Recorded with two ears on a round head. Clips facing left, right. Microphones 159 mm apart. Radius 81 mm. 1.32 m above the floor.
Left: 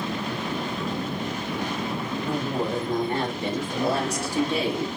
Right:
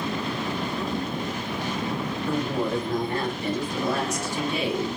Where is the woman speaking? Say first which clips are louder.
Right 1 dB; 20° left (ahead or behind), 4.5 m; by 4.9 s 45° left (ahead or behind), 3 m.